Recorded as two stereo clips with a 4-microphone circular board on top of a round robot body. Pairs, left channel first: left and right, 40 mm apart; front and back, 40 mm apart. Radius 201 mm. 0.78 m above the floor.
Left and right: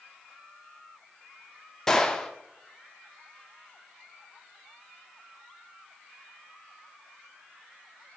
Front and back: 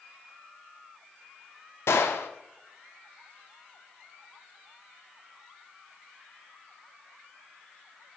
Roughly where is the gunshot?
Ahead.